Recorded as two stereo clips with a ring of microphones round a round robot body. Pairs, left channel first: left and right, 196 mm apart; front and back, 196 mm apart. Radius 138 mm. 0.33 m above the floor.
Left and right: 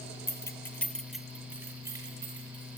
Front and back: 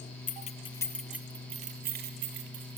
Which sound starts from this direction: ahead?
Keys jangling, at 0.3 s.